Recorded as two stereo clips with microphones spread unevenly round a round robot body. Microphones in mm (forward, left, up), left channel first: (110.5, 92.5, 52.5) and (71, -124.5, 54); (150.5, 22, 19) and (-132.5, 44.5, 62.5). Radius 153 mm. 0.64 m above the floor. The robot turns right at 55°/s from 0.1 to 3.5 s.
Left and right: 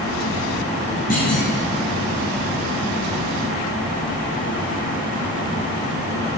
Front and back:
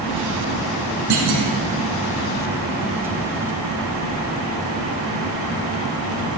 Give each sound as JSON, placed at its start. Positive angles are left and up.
{"t": 1.1, "sound": "a clunk", "azimuth_deg": 145, "distance_m": 1.7}